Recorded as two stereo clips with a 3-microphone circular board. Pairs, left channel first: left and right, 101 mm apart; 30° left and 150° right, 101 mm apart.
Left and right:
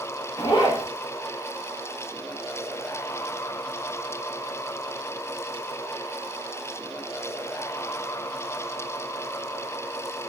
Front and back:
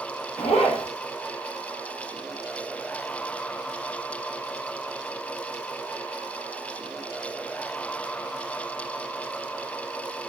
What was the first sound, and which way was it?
A zipper, 40° left.